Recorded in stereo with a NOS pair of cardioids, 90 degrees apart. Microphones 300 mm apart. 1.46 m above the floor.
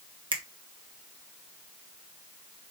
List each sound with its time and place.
0.3 s a finger snap: 15° right, 1.4 m